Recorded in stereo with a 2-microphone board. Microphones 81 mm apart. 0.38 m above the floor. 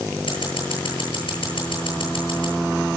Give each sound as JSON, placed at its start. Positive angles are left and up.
{"t": 0.3, "sound": "scissors", "side_deg": 80, "distance_m": 9.0}